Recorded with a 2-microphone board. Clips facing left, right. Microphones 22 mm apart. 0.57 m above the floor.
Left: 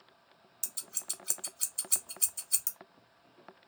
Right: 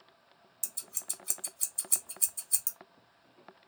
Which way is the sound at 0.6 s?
20° left (ahead or behind).